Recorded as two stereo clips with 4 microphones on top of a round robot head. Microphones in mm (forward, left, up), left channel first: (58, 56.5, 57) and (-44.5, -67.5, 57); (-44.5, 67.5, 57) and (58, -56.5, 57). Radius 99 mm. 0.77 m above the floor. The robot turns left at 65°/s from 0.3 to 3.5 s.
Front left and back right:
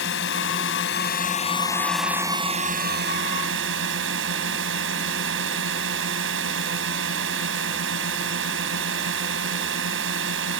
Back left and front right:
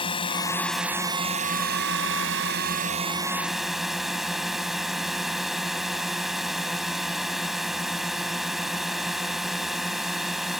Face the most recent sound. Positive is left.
turn(degrees=-140)